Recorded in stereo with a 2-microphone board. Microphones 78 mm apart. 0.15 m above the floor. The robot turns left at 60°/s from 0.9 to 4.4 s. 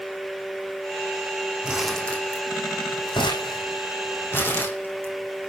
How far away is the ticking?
I don't hear ticking.